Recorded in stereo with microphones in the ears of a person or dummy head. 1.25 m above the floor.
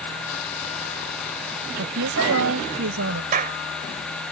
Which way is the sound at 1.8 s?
70° right (ahead or behind).